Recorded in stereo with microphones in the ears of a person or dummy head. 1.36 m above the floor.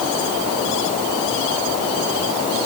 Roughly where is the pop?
No pop in this recording.